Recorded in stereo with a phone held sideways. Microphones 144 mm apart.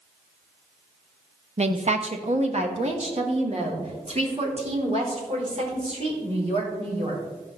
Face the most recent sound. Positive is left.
turn(degrees=-45)  # may be behind; listen again after turning